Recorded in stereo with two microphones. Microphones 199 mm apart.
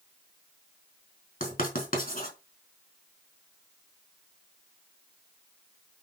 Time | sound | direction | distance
1.4 | writing | 40° left (ahead or behind) | 3.5 m